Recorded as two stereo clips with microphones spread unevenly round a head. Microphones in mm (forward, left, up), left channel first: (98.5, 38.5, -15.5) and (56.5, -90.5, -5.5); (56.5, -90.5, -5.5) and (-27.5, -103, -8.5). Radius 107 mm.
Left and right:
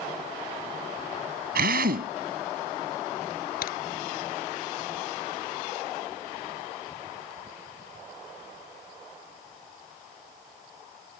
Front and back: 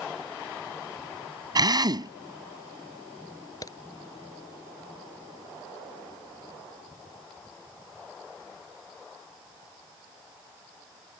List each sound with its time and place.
1.6 s a drill: 130° right
3.6 s a crack: 75° left